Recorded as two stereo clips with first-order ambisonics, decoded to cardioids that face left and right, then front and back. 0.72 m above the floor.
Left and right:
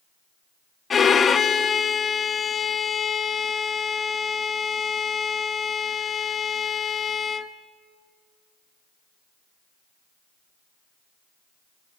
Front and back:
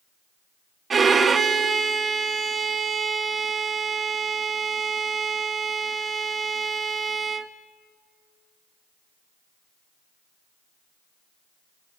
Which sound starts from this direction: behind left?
A violin, at 0.9 s.